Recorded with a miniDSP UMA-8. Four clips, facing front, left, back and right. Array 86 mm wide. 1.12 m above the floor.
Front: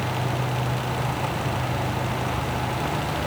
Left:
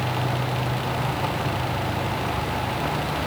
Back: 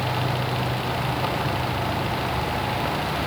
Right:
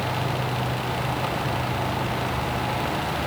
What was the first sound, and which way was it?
Only background noise.